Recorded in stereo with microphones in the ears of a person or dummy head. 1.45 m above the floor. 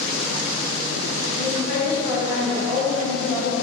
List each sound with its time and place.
1.4 s a woman speaking: 10° left (ahead or behind), 1.2 m